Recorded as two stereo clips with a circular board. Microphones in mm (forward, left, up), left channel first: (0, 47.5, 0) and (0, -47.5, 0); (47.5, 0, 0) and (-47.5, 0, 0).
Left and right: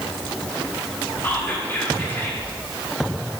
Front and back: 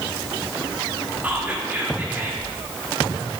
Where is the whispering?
135° left, 0.8 m.